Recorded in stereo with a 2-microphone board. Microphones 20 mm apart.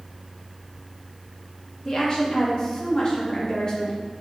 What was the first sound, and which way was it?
A woman speaking, 35° left (ahead or behind).